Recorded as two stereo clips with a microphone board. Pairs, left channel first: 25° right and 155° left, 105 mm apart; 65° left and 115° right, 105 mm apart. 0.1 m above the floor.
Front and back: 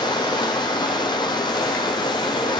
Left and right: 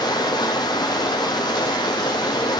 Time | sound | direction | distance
0.0 | running water | 20° left | 0.8 m